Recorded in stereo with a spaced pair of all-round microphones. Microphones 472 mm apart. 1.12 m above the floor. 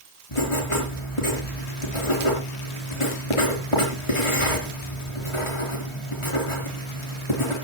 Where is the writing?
80° left, 5 m.